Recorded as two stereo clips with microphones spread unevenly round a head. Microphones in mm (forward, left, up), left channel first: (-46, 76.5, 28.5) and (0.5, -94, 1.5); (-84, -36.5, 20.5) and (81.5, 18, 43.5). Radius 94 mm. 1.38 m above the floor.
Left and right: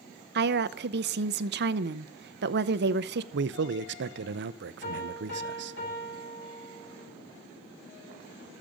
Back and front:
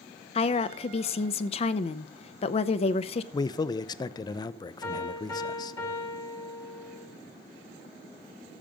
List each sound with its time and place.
0.3 s a woman speaking: 105° right, 0.6 m
3.3 s a man speaking: 95° right, 0.5 m
4.8 s a piano: 120° left, 6 m